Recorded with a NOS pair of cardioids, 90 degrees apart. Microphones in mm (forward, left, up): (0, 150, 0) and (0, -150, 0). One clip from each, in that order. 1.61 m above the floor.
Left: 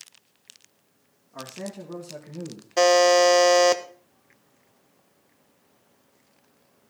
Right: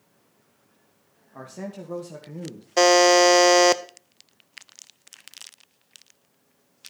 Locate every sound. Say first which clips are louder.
1.3 s a man speaking: left 1 dB; 15° right, 2.5 m
2.8 s a buzzer: right 1 dB; 15° right, 0.7 m